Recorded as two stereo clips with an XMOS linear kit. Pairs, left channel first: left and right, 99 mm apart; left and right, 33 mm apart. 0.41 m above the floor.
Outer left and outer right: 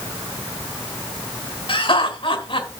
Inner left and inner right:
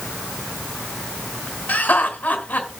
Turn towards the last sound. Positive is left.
turn(degrees=55)  # may be behind; listen again after turning